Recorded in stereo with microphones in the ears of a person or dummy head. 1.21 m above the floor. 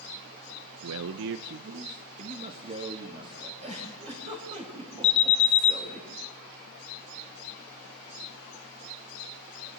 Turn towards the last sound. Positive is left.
turn(degrees=35)  # may be behind; listen again after turning